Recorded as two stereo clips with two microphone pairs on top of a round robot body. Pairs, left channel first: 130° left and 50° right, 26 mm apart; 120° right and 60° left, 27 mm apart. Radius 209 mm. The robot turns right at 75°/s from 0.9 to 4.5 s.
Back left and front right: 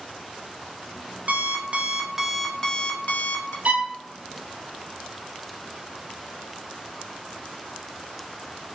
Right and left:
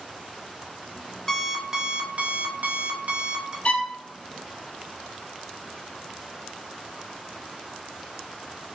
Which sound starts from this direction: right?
A violin, at 3.6 s.